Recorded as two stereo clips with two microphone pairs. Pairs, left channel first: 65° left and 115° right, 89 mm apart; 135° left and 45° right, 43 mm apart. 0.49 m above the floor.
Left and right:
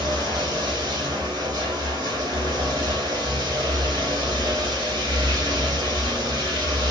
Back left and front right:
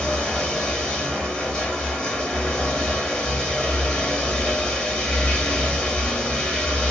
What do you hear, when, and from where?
0.0 s running water: 155° right, 1.4 m